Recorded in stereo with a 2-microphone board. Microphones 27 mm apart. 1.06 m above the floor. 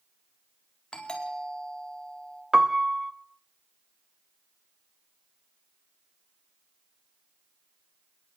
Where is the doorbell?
40° left (ahead or behind), 4.5 m.